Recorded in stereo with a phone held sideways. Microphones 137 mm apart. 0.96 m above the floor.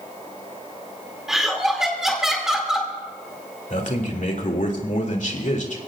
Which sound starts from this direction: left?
A man speaking, at 3.7 s.